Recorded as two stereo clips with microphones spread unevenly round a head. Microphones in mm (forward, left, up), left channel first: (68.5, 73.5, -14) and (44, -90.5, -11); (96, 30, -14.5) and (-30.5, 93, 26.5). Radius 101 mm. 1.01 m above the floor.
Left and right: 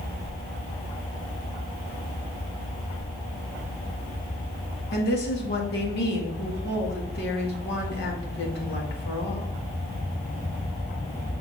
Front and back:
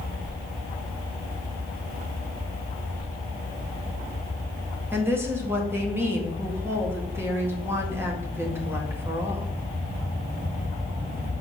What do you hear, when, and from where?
4.9 s a woman speaking: 75° left, 2.0 m